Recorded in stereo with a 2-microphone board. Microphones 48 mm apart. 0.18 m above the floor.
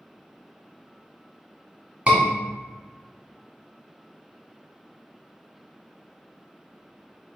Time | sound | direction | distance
2.1 | a scream | 25° right (ahead or behind) | 1.4 m